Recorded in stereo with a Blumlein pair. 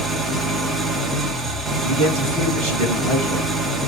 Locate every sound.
0.0 s an engine running: 20° right, 0.9 m
1.8 s a man speaking: 40° right, 1.6 m